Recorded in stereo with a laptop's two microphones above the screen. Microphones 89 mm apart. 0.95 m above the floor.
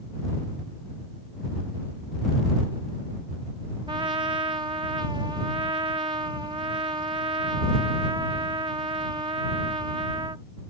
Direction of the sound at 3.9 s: 65° right (ahead or behind).